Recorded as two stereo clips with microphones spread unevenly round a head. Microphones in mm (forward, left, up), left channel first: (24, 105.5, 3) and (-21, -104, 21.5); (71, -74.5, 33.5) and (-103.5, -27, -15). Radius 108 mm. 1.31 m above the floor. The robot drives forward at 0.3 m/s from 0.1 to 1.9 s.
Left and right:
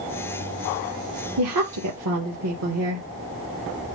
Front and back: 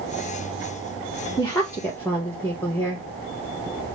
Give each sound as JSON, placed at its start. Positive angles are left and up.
{"t": 1.4, "sound": "a woman speaking", "azimuth_deg": -90, "distance_m": 1.6}